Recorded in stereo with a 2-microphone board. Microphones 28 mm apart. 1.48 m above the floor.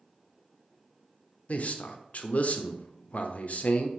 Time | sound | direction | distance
1.5 | a man speaking | 55° left (ahead or behind) | 0.6 m